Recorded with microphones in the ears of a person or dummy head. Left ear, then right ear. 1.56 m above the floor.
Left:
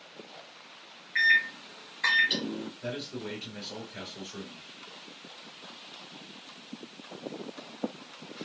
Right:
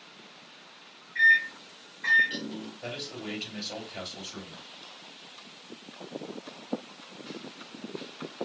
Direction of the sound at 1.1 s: 55° left (ahead or behind).